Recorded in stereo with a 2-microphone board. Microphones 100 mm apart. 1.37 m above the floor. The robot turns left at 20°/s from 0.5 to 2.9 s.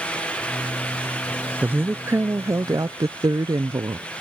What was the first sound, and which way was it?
A woman speaking, 15° right (ahead or behind).